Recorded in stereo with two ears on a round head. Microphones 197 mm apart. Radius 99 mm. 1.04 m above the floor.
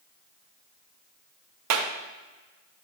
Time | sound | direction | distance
1.7 | a clap | 85° right | 0.9 m